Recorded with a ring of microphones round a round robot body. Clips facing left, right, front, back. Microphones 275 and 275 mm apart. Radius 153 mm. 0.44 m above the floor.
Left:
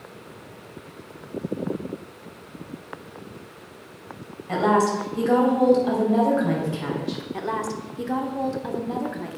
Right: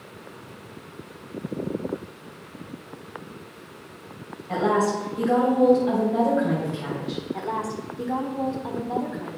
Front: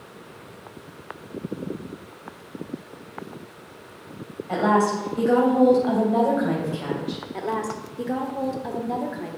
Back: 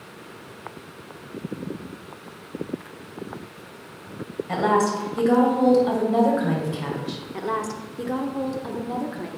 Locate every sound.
4.5 s a woman speaking: 135° left, 3 m
7.3 s a woman speaking: 115° left, 1.2 m